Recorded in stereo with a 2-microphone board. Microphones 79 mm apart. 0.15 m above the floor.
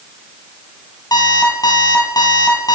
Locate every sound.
1.1 s an alarm clock: 55° left (ahead or behind), 1.8 m